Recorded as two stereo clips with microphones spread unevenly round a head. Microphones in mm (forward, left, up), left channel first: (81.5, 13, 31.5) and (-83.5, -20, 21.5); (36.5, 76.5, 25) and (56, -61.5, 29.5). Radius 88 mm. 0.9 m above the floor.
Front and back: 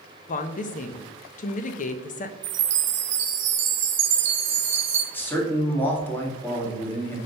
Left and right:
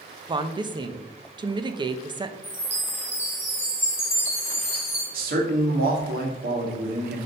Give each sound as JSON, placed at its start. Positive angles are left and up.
{"t": 0.3, "sound": "a woman speaking", "azimuth_deg": -25, "distance_m": 0.7}
{"t": 2.4, "sound": "a chime", "azimuth_deg": 175, "distance_m": 1.1}
{"t": 5.1, "sound": "a man speaking", "azimuth_deg": -70, "distance_m": 1.8}